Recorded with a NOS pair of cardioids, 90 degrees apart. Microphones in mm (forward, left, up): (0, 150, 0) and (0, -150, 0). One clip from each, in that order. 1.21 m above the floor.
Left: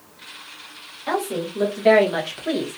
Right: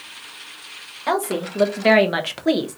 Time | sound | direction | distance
1.1 | a woman speaking | 50° right | 1.5 m